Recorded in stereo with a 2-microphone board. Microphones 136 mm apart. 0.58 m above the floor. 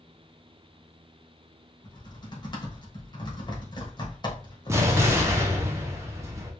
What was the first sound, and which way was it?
Typing on a keyboard, 35° left (ahead or behind).